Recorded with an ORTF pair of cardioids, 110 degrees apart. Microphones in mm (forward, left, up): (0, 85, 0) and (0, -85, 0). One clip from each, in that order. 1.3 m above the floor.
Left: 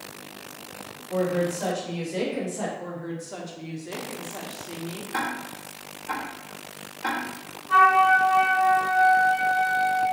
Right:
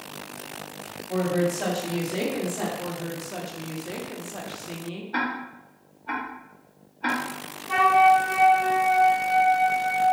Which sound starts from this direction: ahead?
A woman speaking, at 2.8 s.